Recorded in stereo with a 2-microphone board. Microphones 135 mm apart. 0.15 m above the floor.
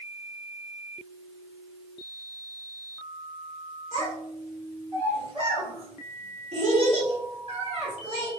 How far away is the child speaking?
About 1.4 m.